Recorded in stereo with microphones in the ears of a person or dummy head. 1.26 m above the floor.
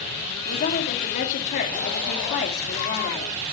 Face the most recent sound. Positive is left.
turn(degrees=40)  # may be behind; listen again after turning